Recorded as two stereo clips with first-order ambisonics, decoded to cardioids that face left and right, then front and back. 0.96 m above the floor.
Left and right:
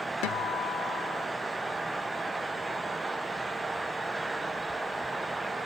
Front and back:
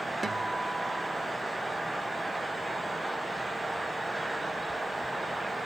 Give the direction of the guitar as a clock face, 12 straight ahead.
9 o'clock.